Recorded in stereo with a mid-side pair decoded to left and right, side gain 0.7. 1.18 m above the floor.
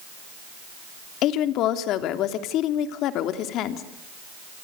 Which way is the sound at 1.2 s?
55° left.